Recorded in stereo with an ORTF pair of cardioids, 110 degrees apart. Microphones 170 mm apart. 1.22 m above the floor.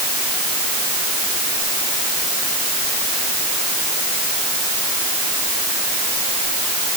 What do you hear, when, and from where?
Only background noise.